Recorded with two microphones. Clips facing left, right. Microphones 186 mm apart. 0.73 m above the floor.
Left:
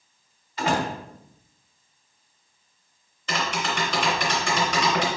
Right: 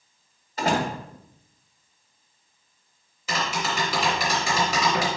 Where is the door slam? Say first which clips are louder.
Right 1 dB; 40° right (ahead or behind), 2 m.